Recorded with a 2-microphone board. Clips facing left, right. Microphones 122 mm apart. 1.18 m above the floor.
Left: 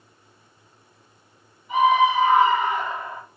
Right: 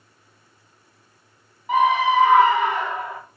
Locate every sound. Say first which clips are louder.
1.7 s a scream: even; 85° right, 4 m